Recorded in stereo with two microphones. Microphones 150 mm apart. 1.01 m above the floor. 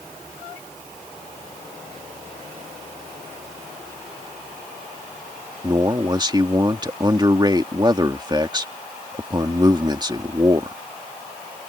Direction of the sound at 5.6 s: 30° right (ahead or behind).